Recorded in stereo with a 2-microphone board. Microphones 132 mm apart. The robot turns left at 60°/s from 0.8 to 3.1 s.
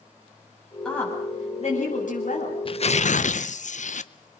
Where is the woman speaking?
175° left, 8 m; by 2.5 s 75° left, 8 m.